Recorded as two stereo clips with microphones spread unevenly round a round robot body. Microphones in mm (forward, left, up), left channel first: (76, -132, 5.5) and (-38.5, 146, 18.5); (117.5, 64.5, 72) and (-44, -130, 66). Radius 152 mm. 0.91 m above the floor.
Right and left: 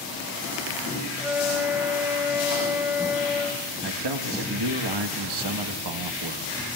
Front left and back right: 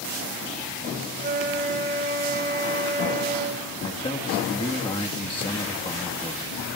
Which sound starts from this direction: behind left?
A man speaking, at 3.8 s.